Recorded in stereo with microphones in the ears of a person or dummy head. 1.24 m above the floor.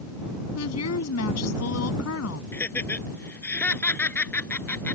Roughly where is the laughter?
Centre.